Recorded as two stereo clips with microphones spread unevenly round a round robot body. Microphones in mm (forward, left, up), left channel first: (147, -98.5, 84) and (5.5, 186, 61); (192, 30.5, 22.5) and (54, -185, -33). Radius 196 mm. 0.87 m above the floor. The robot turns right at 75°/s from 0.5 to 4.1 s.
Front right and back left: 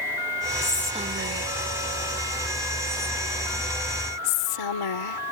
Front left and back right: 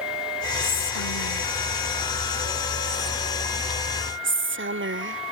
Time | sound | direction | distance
0.6 | whispering | 15° left | ?